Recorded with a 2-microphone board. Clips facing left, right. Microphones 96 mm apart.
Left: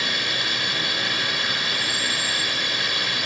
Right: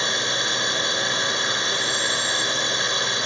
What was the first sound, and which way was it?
A drone, 25° right (ahead or behind).